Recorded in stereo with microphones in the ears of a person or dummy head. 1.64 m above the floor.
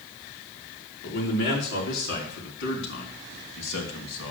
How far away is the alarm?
I don't hear an alarm.